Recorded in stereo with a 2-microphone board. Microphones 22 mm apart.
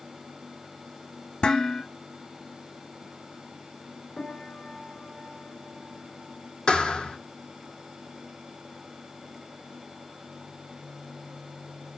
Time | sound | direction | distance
1.4 | dishes clattering | 50° left (ahead or behind) | 2.5 m
4.2 | a piano | 50° left (ahead or behind) | 2.5 m
6.7 | a thud | 50° left (ahead or behind) | 1.6 m